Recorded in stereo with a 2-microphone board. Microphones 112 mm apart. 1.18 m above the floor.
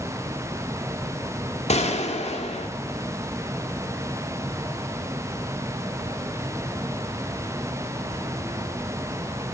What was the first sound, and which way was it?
A gunshot, 65° left (ahead or behind).